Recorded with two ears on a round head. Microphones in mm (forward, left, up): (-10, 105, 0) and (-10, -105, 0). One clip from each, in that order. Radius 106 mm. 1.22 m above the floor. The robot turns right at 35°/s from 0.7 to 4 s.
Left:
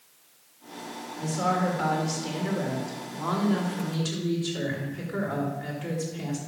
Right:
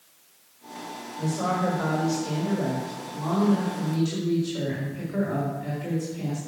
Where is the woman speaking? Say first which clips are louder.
Even; 40° left, 4 m; by 6.4 s 140° left, 4 m.